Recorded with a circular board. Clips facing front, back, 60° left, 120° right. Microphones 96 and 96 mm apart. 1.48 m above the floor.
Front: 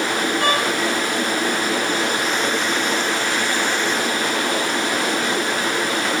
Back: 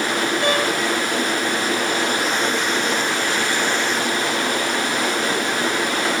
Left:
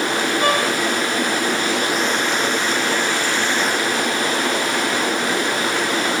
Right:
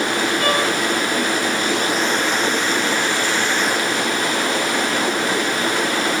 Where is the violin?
10° right, 5 m.